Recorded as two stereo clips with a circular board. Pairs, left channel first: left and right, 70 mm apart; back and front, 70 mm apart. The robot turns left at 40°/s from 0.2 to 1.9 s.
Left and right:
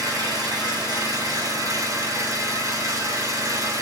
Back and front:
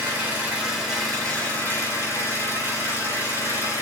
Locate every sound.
0.0 s an engine running: 60° right, 3.5 m; by 3.8 s 125° right, 3.5 m